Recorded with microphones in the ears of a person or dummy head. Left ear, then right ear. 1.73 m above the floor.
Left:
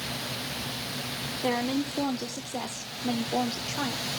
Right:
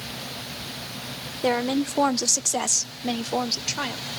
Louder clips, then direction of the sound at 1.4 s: Right 6 dB; 35° right (ahead or behind).